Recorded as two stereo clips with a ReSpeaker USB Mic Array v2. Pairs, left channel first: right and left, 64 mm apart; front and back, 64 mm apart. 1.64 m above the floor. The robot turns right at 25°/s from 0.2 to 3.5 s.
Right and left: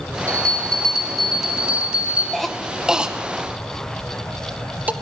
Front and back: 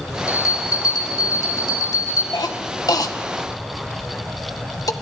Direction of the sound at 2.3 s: 5° right.